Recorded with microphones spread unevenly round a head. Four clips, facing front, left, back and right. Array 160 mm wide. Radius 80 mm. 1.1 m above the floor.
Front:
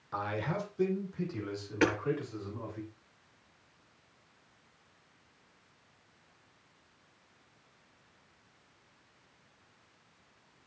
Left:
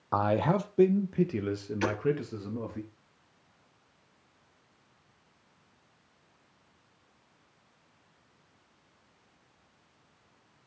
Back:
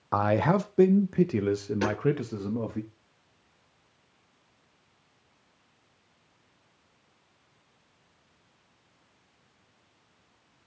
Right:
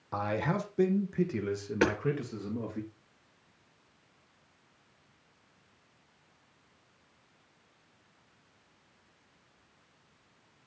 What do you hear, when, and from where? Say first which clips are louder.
0.1 s a man speaking: left 5 dB, back 11 dB; 160° left, 0.8 m; by 2.8 s straight behind, 2 m
1.8 s hammering: right 4 dB, front 3 dB; 75° right, 5.5 m